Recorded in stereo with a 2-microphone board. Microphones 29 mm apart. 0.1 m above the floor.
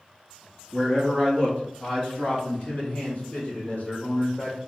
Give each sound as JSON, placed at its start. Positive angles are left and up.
{"t": 0.7, "sound": "a man speaking", "side_deg": 25, "distance_m": 1.4}